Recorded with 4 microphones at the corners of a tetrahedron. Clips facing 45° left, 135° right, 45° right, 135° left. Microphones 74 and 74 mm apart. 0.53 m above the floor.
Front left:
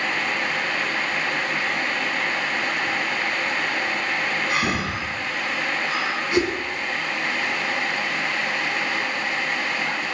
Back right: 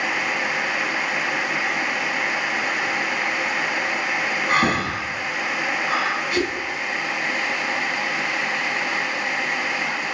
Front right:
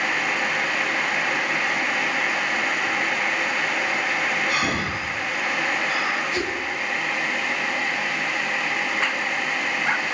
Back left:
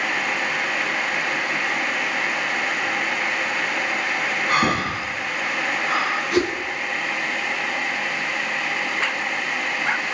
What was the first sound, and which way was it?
Breathing, straight behind.